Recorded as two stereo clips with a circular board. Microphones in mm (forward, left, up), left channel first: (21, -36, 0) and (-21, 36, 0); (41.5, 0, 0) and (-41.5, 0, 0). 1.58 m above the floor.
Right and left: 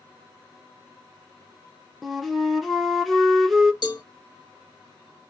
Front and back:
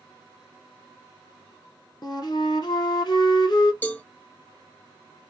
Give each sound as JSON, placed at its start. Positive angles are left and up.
{"t": 2.0, "sound": "a flute", "azimuth_deg": 30, "distance_m": 0.9}
{"t": 3.8, "sound": "a cowbell", "azimuth_deg": -65, "distance_m": 1.2}